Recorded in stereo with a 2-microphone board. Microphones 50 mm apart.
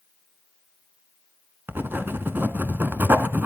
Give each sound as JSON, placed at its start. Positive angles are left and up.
{"t": 1.7, "sound": "writing", "side_deg": -45, "distance_m": 1.1}